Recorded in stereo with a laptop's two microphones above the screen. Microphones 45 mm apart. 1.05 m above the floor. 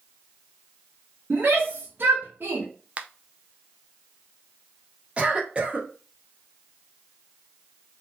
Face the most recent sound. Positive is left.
turn(degrees=-30)  # may be behind; listen again after turning